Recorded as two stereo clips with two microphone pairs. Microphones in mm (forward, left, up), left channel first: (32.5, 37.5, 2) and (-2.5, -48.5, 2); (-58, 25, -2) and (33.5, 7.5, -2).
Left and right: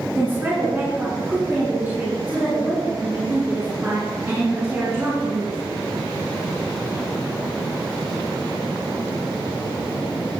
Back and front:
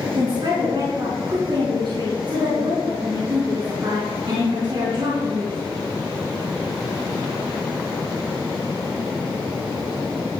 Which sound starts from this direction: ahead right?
A woman speaking, at 0.1 s.